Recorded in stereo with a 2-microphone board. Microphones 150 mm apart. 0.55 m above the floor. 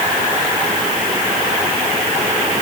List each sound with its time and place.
Only background noise.